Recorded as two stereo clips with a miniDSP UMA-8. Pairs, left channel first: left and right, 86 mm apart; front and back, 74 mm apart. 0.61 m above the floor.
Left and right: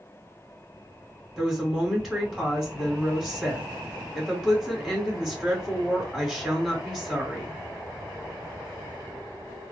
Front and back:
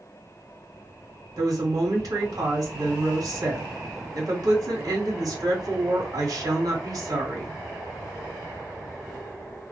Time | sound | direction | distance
1.4 | a woman speaking | straight behind | 2 m